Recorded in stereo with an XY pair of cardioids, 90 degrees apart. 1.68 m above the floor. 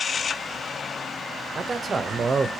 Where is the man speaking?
35° right, 0.7 m.